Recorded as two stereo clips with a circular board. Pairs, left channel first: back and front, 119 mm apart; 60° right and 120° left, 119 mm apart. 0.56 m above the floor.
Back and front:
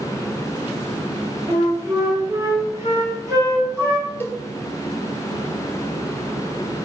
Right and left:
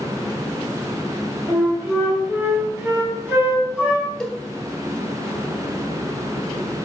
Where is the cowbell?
140° right, 0.6 m.